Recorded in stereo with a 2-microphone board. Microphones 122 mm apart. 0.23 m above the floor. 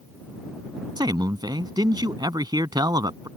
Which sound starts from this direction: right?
A man speaking, at 1.0 s.